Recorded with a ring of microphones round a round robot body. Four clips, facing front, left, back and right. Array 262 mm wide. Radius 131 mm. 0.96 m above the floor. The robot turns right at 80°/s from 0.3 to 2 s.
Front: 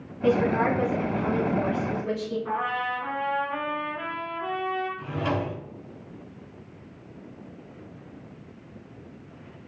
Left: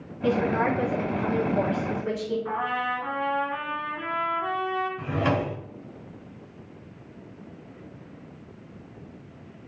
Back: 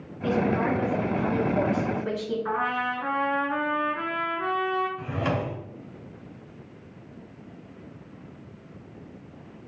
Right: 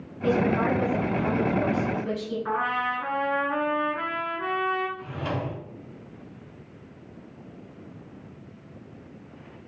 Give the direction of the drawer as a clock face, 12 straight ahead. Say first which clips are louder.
Left 6 dB, even; 8 o'clock.